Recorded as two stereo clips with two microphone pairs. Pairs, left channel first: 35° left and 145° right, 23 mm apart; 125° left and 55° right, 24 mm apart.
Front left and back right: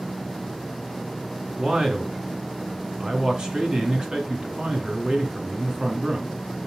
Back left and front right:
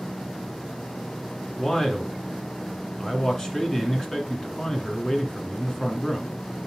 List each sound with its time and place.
1.6 s a man speaking: straight behind, 1.7 m